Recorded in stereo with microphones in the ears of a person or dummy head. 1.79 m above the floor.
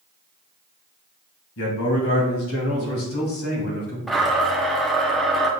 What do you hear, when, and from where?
1.6 s a man speaking: 60° left (ahead or behind), 2 m; by 4.0 s 80° left, 4 m
4.1 s a blender: centre (ahead or behind), 0.9 m